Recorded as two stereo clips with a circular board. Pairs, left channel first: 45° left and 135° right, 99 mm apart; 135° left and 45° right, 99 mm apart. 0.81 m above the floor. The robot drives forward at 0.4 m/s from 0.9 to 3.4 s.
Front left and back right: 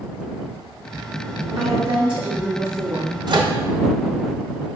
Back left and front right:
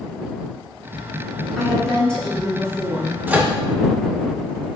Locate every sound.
1.6 s a woman speaking: 140° right, 2.0 m; by 3.2 s 150° right, 2.5 m
3.3 s a microwave: 110° right, 0.6 m; by 3.5 s 120° right, 0.6 m